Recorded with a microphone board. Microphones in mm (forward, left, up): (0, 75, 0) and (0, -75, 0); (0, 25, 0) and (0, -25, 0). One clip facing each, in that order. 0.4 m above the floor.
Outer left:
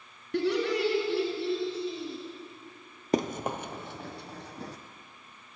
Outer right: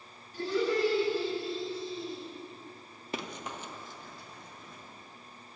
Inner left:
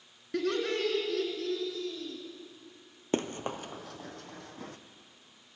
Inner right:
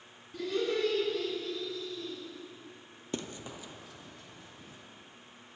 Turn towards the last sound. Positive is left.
turn(degrees=75)  # may be behind; listen again after turning